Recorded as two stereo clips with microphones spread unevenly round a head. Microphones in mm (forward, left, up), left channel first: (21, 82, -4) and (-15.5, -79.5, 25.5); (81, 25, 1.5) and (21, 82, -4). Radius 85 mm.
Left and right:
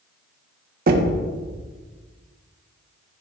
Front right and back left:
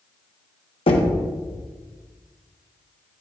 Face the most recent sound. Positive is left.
turn(degrees=-65)